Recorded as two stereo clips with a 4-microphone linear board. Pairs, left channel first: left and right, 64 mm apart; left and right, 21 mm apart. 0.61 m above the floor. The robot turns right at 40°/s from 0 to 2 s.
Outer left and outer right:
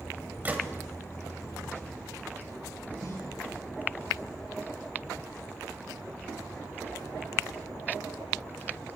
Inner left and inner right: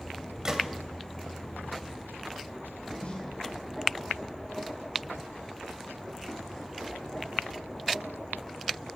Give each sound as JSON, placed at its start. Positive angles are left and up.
{"t": 0.5, "sound": "a gunshot", "side_deg": -25, "distance_m": 1.9}
{"t": 3.0, "sound": "a snare drum", "side_deg": 65, "distance_m": 5.5}